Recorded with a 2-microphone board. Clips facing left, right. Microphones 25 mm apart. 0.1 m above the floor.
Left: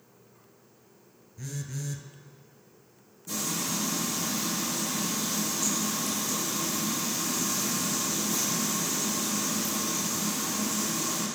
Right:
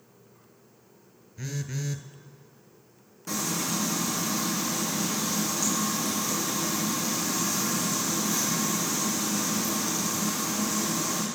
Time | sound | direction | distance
1.4 | a phone buzzing | 35° right (ahead or behind) | 0.7 m
3.3 | frying | 70° right (ahead or behind) | 3 m